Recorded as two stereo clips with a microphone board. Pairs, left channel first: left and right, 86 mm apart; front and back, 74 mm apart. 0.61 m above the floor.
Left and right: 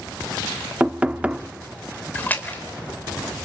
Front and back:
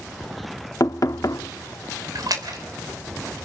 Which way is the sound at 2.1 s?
160° left.